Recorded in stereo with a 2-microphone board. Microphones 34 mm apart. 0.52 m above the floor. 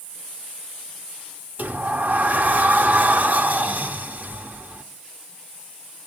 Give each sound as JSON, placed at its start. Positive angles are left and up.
{"t": 1.6, "sound": "a sliding door", "side_deg": -55, "distance_m": 0.6}